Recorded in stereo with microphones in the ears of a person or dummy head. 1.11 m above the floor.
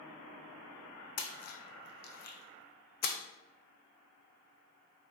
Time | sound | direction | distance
1.2 | a splash | 50° left (ahead or behind) | 0.6 m